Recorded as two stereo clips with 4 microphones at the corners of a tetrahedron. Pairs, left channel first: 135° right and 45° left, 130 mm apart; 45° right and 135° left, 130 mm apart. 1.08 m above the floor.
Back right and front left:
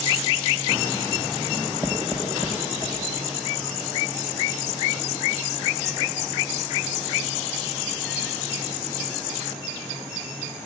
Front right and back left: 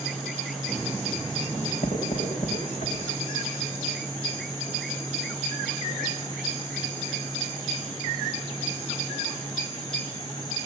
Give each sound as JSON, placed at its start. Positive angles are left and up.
{"t": 1.5, "sound": "writing", "azimuth_deg": -75, "distance_m": 4.0}